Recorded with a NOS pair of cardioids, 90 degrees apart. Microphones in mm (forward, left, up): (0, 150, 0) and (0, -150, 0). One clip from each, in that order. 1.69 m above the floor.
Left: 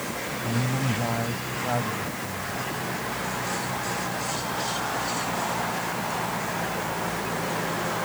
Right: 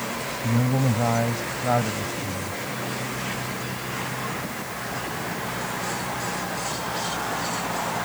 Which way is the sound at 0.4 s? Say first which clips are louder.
Right 4 dB; 40° right.